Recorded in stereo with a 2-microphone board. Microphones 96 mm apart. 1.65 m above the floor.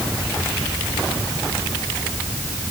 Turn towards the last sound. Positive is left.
No sound to turn to.